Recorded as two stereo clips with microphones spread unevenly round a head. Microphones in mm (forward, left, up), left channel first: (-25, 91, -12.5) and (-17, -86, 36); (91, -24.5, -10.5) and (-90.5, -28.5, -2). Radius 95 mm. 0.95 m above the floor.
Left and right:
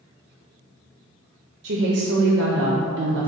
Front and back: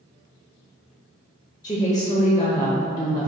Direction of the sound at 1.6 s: 65° right.